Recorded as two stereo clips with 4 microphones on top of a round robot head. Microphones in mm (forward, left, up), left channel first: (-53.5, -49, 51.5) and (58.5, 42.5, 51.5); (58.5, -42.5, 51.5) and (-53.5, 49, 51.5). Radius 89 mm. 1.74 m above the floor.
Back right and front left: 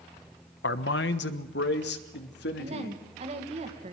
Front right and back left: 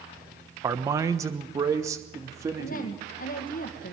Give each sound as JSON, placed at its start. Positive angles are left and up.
{"t": 0.6, "sound": "a man speaking", "azimuth_deg": -150, "distance_m": 1.1}
{"t": 2.6, "sound": "a woman speaking", "azimuth_deg": -10, "distance_m": 2.0}